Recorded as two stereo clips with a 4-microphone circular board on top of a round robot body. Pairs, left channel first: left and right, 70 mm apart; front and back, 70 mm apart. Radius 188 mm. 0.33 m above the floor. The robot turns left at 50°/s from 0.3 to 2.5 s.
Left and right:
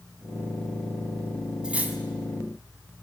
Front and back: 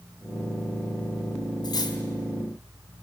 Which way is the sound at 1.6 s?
15° right.